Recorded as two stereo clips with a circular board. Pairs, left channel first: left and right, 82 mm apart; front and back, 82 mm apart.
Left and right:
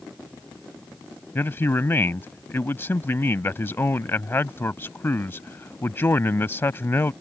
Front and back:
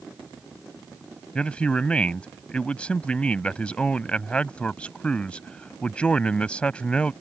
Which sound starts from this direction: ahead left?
A man speaking, at 1.4 s.